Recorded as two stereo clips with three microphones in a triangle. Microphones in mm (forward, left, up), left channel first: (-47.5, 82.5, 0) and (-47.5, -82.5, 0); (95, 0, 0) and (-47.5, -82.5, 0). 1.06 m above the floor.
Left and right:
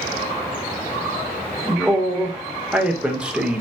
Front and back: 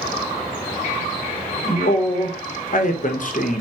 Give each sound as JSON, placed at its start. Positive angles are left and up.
{"t": 1.7, "sound": "a man speaking", "azimuth_deg": -5, "distance_m": 0.8}